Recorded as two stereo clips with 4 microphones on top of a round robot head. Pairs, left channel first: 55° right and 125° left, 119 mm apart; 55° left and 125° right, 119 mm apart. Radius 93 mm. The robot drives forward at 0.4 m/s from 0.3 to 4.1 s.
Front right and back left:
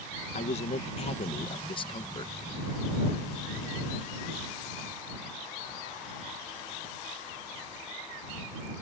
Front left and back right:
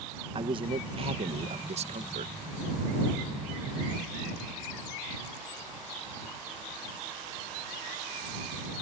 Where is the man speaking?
80° right; by 2.3 s 105° right.